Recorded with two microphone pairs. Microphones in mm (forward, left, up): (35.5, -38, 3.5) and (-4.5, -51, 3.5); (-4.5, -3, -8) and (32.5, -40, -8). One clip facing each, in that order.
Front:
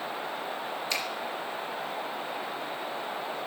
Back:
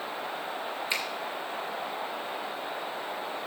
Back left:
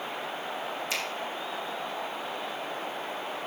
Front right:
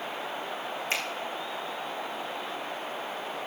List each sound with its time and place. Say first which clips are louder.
0.9 s a finger snap: back 1 dB, front right 3 dB; 95° right, 3.5 m